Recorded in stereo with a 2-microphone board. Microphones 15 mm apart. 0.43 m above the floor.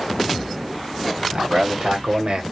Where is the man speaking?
60° right (ahead or behind), 2 m; by 2.4 s 50° right (ahead or behind), 1.3 m.